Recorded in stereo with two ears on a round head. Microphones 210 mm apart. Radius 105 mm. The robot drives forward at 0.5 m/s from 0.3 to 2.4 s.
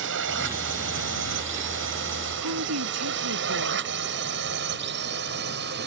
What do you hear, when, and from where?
0.0 s a drone: 55° right (ahead or behind); by 5.9 s 45° right (ahead or behind)
2.4 s a woman speaking: 75° right (ahead or behind)